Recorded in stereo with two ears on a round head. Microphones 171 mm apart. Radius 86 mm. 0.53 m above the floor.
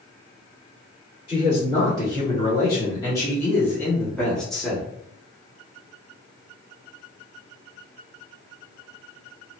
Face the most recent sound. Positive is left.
turn(degrees=0)  # may be behind; listen again after turning